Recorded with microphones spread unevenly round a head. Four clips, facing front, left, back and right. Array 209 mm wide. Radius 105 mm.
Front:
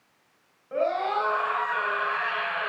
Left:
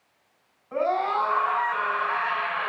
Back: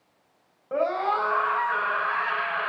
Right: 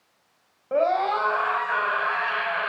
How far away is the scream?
About 5.5 m.